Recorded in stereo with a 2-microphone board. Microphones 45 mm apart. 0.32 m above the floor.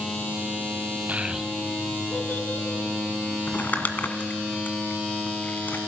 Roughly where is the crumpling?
Left.